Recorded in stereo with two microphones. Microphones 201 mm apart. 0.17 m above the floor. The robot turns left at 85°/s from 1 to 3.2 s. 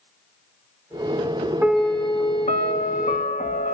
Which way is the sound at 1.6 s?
165° right.